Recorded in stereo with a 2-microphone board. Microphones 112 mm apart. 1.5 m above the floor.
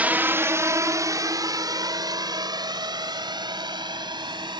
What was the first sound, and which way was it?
A drone, 15° right (ahead or behind).